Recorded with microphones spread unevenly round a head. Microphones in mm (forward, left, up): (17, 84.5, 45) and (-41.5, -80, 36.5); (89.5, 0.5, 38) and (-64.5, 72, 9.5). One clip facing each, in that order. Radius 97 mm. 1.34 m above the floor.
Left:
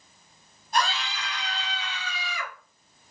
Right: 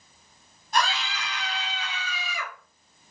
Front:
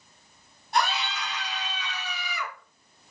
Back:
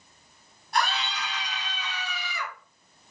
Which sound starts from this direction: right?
A scream, at 0.7 s.